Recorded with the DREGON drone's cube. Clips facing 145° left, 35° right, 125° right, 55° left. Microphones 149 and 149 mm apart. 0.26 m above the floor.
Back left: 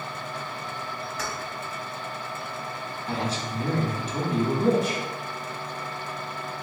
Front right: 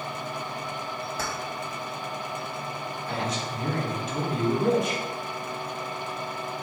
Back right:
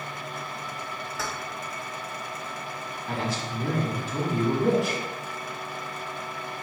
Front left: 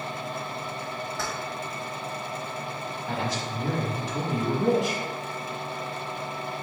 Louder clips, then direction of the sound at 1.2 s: Front right 1 dB, back right 1 dB; 40° right.